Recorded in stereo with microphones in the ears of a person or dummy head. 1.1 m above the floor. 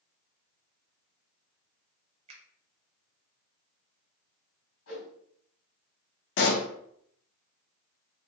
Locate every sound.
2.3 s a finger snap: 35° right (ahead or behind), 0.9 m
4.9 s a whoosh: 70° left (ahead or behind), 2 m
6.4 s a pop: 55° left (ahead or behind), 0.7 m